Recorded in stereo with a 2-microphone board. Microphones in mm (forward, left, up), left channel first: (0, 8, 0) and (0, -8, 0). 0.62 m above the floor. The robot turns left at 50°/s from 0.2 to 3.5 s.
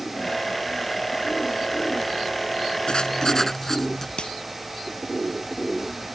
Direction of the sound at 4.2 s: 75° left (ahead or behind).